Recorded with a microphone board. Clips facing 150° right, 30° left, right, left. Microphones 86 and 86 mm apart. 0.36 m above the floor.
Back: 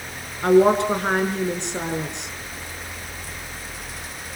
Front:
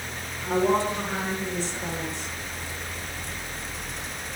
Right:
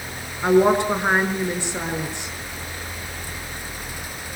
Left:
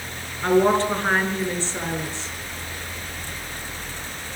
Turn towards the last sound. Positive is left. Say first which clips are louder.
# back 8 dB, right 2 dB
turn(degrees=-165)